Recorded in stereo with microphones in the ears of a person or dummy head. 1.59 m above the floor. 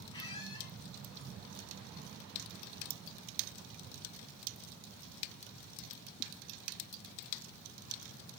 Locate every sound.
0.1 s a squeak: 25° left (ahead or behind), 3 m